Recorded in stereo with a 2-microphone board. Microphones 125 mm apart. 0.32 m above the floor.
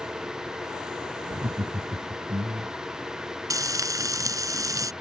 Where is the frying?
25° right (ahead or behind).